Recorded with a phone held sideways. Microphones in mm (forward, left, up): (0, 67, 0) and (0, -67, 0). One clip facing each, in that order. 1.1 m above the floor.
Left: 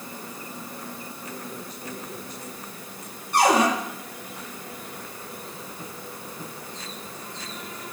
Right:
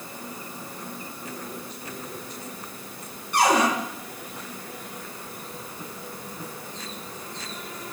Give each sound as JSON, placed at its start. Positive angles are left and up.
{"t": 3.3, "sound": "a cupboard door", "side_deg": 30, "distance_m": 3.0}